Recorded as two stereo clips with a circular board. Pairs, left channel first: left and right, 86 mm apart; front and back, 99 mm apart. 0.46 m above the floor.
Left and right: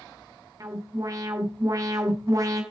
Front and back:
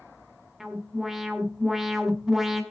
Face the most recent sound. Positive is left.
turn(degrees=-95)